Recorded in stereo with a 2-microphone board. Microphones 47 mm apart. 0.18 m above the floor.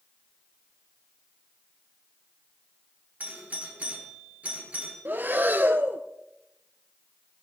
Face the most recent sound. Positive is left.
turn(degrees=-45)  # may be behind; listen again after turning